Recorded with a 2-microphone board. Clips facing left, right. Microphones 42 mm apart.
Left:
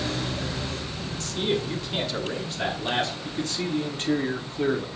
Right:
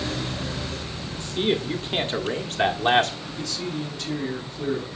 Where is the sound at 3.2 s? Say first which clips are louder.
Left 2 dB; 45° left (ahead or behind), 1.7 m.